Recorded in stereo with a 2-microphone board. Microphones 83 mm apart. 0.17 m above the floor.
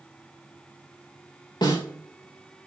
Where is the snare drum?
65° left (ahead or behind), 6 m.